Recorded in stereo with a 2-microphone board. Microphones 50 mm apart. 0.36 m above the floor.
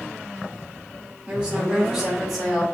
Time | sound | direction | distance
1.3 | a woman speaking | 20° right (ahead or behind) | 0.9 m